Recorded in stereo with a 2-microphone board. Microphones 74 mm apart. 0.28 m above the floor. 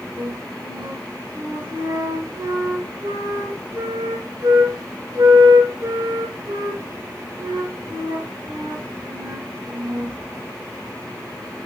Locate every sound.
0.2 s a flute: 65° right (ahead or behind), 3 m